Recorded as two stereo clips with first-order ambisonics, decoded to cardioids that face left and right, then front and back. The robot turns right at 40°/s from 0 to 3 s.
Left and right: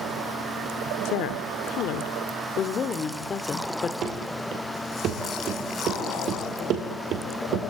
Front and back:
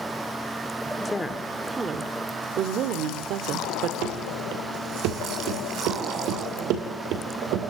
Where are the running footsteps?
150° right, 4.5 m; by 7.7 s 135° right, 2.5 m.